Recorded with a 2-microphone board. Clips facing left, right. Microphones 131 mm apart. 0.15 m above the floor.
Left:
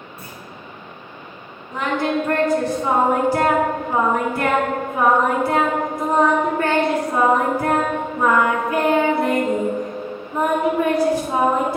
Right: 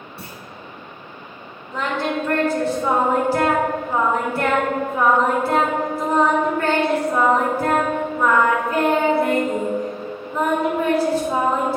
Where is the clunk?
75° right (ahead or behind), 2.5 m.